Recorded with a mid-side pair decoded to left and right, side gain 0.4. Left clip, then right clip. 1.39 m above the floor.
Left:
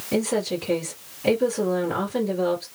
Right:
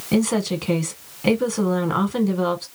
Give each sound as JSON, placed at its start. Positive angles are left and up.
{"t": 0.1, "sound": "a woman speaking", "azimuth_deg": -70, "distance_m": 1.2}